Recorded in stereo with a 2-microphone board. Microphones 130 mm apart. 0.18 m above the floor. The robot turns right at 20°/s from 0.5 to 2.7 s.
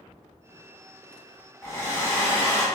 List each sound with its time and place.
1.6 s a hair dryer: 20° left (ahead or behind), 1.1 m; by 2.6 s 15° left (ahead or behind), 1.1 m